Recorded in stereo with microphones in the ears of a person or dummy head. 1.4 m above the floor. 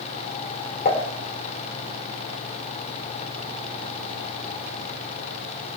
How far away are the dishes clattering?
About 3 m.